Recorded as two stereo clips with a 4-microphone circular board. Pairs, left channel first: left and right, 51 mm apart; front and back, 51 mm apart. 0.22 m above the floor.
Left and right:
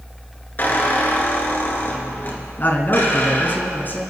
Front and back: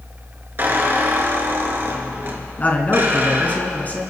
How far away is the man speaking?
About 2 m.